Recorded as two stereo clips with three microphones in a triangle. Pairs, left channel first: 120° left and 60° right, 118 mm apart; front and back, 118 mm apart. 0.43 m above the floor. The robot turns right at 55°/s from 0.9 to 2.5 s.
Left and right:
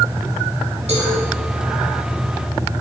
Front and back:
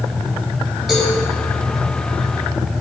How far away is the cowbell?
About 4 m.